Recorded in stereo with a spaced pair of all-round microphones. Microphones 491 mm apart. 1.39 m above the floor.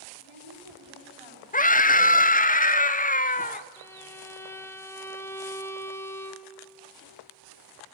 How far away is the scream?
About 0.7 m.